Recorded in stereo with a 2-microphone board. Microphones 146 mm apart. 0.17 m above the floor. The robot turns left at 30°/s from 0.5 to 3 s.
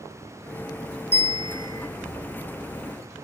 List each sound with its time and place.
1.1 s a bell: 40° right (ahead or behind), 1.3 m; by 1.9 s 20° right (ahead or behind), 1.3 m